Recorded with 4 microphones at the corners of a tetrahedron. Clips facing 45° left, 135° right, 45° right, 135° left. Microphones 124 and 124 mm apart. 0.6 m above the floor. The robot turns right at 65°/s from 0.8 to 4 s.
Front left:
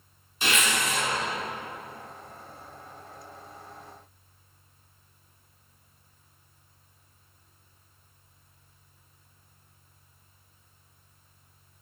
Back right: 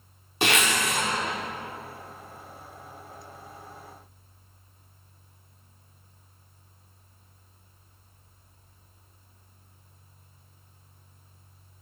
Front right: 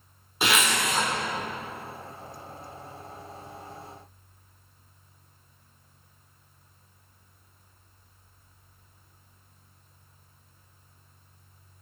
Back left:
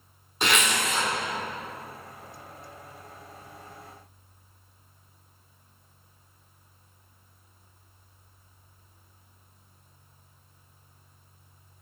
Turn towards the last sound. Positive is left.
turn(degrees=80)